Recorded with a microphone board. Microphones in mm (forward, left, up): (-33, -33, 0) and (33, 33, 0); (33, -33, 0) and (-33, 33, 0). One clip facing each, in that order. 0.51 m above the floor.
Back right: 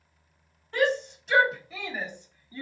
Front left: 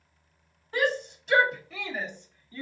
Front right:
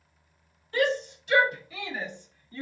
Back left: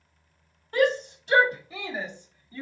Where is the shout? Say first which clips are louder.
Back right 2 dB, back left 3 dB; 130° left, 1.6 m; by 2.6 s 155° right, 1.1 m.